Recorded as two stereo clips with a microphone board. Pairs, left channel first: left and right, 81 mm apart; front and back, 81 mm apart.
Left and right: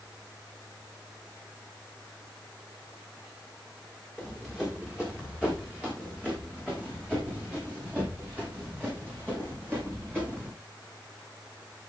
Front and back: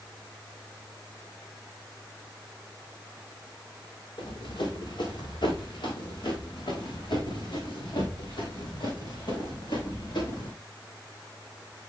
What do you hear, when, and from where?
4.2 s running footsteps: 10° right, 5.5 m; by 10.5 s 25° right, 8.5 m